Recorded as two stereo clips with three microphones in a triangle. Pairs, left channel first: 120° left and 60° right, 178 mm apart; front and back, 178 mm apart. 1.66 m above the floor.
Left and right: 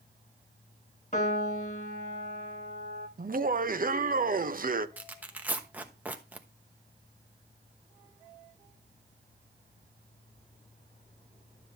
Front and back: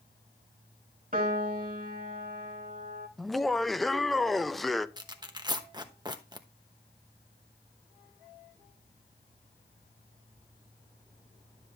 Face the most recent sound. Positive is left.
turn(degrees=-135)